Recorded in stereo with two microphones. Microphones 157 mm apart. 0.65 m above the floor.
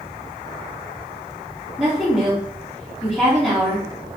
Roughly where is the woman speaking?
Centre.